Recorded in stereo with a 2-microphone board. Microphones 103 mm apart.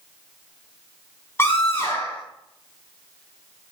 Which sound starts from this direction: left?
A scream, at 1.4 s.